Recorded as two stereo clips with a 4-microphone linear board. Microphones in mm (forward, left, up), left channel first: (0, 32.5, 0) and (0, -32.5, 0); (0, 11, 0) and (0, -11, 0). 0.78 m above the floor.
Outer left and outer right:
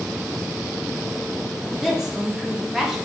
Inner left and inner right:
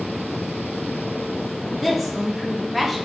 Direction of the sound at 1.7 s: 5° right (ahead or behind).